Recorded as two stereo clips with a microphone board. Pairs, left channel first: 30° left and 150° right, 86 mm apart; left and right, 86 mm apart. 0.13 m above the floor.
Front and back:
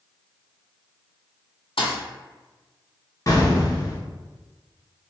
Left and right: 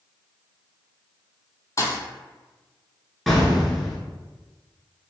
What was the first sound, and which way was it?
A thud, 35° left.